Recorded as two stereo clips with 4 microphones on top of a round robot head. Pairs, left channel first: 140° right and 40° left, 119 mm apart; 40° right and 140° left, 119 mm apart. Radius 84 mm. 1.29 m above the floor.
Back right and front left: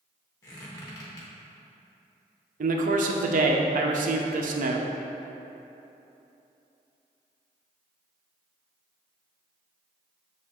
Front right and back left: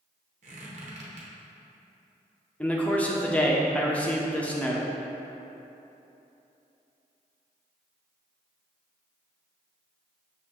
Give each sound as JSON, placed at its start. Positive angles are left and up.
{"t": 0.4, "sound": "a squeak", "azimuth_deg": 165, "distance_m": 0.7}
{"t": 2.6, "sound": "a man speaking", "azimuth_deg": 40, "distance_m": 0.5}